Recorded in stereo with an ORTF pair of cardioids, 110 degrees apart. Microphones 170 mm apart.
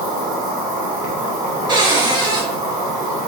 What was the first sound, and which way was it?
An insect, 55° right.